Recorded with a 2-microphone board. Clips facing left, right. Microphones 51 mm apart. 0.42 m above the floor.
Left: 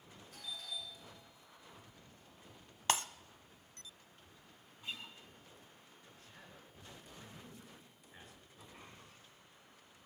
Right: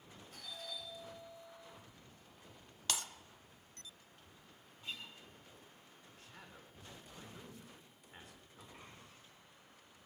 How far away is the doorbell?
About 8 m.